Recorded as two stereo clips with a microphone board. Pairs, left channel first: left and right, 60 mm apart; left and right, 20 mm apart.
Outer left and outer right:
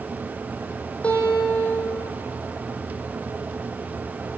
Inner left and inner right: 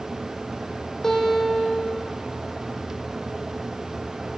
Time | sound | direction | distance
1.0 | a guitar | 25° left (ahead or behind) | 1.5 m